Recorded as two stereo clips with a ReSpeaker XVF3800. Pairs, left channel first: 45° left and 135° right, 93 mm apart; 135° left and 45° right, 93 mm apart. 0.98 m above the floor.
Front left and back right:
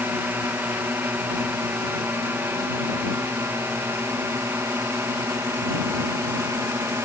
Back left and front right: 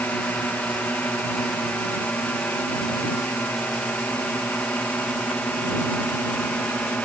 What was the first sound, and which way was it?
A drone, 175° right.